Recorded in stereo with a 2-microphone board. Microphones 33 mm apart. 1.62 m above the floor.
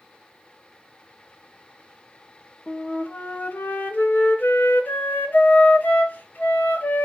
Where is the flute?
65° left (ahead or behind), 2.5 m.